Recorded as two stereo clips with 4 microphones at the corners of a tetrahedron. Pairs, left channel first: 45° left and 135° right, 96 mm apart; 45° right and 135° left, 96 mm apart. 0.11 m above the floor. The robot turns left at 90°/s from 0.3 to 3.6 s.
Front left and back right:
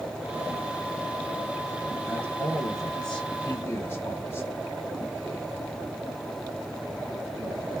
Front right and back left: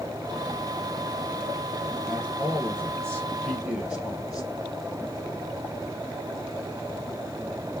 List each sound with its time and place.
2.1 s a man speaking: 150° right, 1.7 m; by 4.5 s 70° left, 1.7 m